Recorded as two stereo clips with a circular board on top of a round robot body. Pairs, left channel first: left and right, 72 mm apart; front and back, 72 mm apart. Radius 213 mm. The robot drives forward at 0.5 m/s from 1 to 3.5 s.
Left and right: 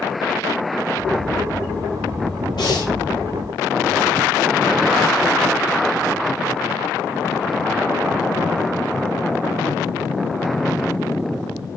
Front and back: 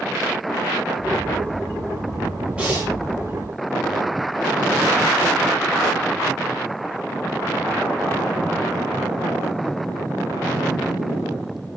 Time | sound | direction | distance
2.6 | breathing | 105° left | 7.5 m